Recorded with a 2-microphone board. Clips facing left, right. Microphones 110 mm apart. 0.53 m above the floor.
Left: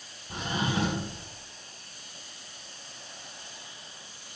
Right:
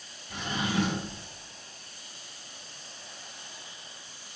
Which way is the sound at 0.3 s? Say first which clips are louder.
Even; 40° left (ahead or behind).